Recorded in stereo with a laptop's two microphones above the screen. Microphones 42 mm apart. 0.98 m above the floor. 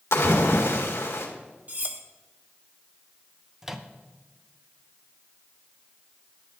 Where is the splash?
80° left, 1.7 m.